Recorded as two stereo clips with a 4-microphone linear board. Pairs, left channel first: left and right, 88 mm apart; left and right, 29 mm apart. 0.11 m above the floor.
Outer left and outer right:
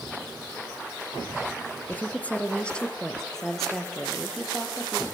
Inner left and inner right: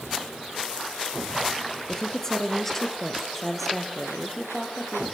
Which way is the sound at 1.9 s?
20° left (ahead or behind).